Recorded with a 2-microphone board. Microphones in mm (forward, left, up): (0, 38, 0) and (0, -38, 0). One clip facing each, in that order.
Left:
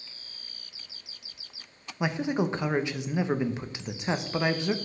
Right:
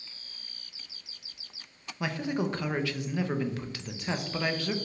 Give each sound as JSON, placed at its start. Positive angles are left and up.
{"t": 2.0, "sound": "a man speaking", "side_deg": 20, "distance_m": 0.6}